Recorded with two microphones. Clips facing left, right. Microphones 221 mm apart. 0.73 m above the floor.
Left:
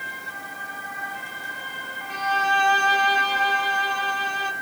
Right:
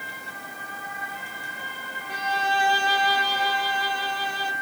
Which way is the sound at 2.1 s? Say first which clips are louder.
Left 1 dB; 10° right (ahead or behind).